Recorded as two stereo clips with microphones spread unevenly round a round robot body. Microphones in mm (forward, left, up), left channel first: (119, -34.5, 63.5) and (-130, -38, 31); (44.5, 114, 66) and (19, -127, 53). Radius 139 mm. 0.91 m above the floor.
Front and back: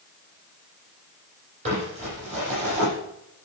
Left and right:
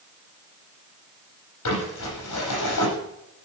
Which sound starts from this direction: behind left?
Crumpling, at 1.6 s.